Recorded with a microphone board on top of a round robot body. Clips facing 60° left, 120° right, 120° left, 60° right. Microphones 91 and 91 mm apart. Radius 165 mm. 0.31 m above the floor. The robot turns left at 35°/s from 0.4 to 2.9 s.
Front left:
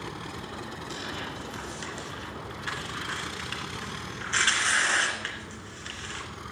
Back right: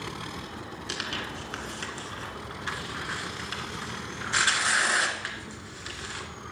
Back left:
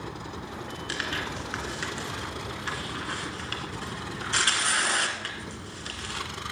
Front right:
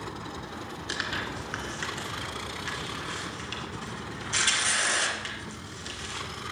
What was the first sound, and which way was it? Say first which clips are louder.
Tearing paper: back right 3 dB, even; 130° right.